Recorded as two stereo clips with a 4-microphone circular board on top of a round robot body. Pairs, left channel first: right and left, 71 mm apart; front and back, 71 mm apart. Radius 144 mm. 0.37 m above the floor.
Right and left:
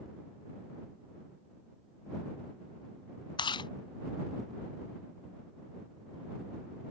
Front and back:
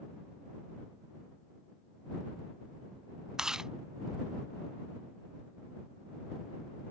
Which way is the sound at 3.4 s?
100° right.